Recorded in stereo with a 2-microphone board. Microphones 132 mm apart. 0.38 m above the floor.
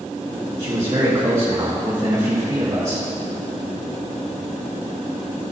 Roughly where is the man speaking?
Right.